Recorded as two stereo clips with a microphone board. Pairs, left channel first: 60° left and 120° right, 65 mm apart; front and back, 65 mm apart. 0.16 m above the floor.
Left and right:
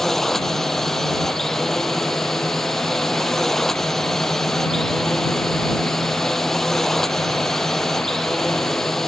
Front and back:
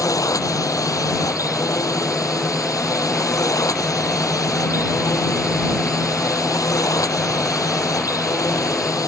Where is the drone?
25° right.